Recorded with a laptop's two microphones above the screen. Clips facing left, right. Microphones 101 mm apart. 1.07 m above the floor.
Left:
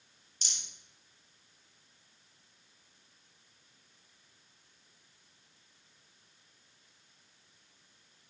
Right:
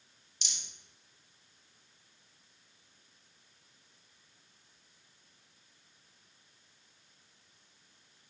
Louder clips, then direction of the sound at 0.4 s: Even; 45° left (ahead or behind).